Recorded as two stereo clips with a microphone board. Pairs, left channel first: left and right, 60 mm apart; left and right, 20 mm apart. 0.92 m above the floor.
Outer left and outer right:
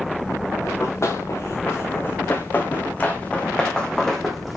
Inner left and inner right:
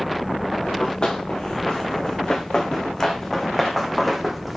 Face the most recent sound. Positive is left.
turn(degrees=0)  # may be behind; listen again after turning